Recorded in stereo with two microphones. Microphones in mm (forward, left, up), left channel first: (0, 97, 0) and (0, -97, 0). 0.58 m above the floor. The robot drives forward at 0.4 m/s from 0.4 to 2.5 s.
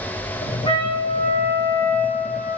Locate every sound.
0.7 s a trumpet: 25° left (ahead or behind), 1.6 m; by 2.6 s 40° left (ahead or behind), 1.1 m